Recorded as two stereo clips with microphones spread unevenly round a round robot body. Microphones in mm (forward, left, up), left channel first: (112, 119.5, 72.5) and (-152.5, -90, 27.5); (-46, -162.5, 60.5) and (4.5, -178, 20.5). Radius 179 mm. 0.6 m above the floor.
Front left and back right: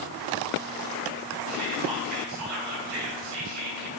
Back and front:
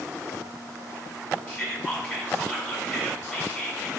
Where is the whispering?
140° right, 4 m.